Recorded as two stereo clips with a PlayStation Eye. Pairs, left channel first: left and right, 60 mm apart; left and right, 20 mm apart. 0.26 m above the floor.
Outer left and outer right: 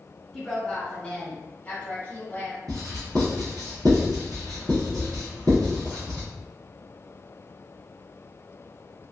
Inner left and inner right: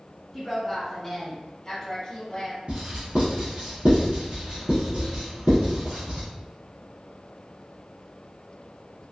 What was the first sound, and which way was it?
A woman speaking, centre (ahead or behind).